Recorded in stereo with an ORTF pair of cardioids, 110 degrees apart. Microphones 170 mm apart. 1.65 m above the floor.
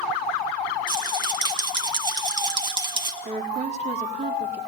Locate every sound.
0.9 s a rattle: 25° right, 2.5 m
3.2 s a woman speaking: 40° right, 4 m